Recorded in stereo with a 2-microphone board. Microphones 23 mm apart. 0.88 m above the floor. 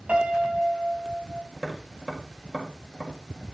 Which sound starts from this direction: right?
A piano, at 0.1 s.